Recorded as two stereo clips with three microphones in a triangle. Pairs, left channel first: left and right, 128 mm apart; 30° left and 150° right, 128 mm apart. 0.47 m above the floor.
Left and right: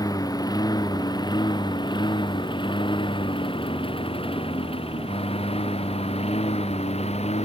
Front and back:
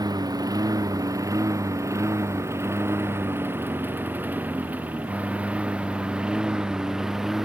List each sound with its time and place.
0.0 s a lawn mower: 150° left; by 7.5 s 125° left